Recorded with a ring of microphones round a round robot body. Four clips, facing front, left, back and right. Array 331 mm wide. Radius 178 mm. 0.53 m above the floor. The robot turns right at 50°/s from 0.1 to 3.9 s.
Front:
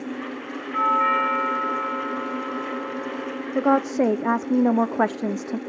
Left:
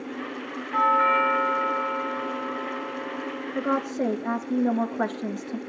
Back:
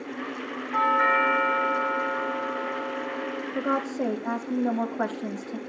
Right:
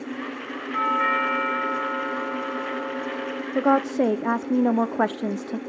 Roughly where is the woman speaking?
Ahead right.